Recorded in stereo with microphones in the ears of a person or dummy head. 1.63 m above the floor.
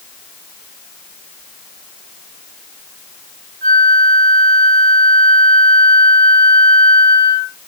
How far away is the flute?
About 1.3 m.